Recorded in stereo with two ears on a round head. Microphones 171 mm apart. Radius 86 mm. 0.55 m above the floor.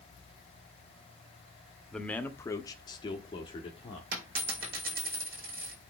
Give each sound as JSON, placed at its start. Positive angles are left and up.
{"t": 1.9, "sound": "a man speaking", "side_deg": 5, "distance_m": 0.9}
{"t": 4.1, "sound": "a dropped coin", "side_deg": -50, "distance_m": 5.0}